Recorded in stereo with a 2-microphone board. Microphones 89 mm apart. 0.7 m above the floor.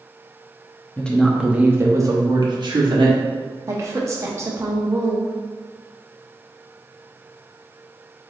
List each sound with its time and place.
1.0 s a woman speaking: 15° left (ahead or behind), 0.6 m; by 3.2 s 65° right (ahead or behind), 1.2 m
3.7 s a woman speaking: 35° right (ahead or behind), 0.8 m